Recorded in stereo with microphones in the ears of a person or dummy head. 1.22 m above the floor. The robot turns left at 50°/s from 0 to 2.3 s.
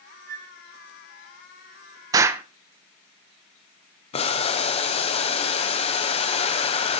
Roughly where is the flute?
Right.